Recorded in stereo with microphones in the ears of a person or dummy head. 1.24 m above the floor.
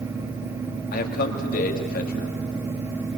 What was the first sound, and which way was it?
A man speaking, 55° left (ahead or behind).